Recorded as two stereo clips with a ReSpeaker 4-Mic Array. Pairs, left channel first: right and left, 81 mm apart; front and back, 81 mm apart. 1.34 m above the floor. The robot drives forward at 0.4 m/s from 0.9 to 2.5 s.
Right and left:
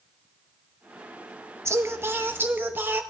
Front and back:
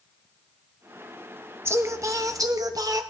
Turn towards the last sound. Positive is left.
turn(degrees=150)